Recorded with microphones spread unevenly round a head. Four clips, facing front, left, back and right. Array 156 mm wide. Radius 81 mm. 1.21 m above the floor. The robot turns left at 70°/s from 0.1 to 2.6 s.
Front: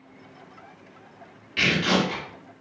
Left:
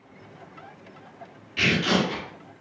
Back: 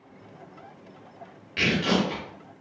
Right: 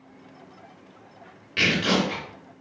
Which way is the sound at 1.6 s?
100° right.